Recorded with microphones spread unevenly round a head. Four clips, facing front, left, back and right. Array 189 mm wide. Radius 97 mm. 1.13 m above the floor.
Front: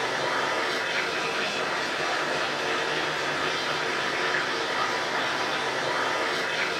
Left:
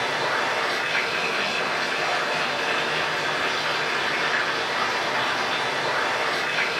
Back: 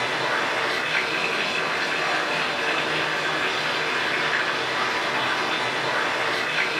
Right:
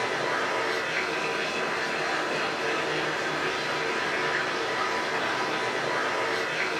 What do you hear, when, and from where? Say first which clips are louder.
0.0 s running water: left 3 dB, back 2 dB; 130° left, 4 m